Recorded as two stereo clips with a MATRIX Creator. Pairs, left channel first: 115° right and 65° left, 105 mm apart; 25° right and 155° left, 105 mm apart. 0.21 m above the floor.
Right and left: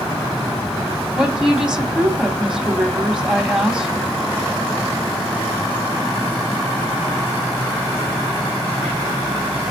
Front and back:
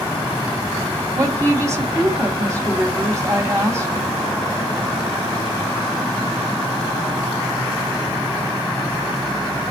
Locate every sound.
1.1 s a woman speaking: 140° left, 1.7 m